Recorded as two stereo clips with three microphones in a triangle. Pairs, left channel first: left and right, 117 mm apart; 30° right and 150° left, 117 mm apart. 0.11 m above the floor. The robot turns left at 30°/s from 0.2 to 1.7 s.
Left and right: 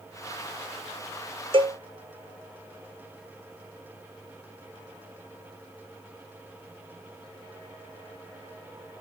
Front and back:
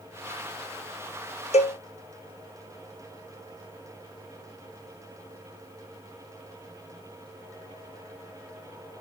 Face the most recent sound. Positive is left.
turn(degrees=-50)